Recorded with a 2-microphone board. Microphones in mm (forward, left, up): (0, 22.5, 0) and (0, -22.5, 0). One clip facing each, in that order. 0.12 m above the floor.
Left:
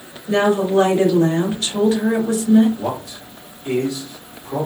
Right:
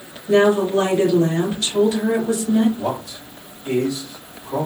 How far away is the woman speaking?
About 2.0 m.